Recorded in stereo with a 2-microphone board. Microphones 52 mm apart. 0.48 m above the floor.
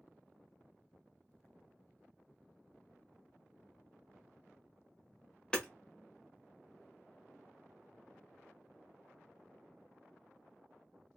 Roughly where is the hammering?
Centre.